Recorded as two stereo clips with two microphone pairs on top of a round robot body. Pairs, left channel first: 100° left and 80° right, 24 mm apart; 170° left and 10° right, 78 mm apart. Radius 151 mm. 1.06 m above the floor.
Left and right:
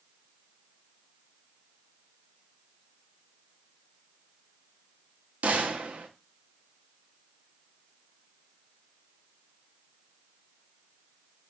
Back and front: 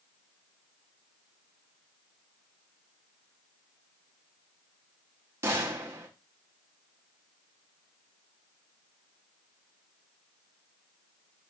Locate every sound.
5.4 s a gunshot: 75° right, 1.0 m